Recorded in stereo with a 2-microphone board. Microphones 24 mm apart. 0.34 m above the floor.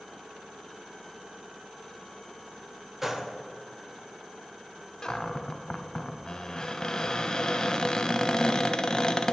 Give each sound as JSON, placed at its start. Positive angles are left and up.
{"t": 3.0, "sound": "a gunshot", "side_deg": -15, "distance_m": 0.9}
{"t": 5.0, "sound": "a cupboard door", "side_deg": 25, "distance_m": 0.7}